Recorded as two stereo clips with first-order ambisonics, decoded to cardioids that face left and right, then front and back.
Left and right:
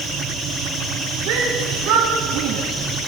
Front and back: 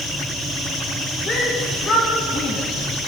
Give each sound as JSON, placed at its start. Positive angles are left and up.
{"t": 1.3, "sound": "a shout", "azimuth_deg": -70, "distance_m": 3.5}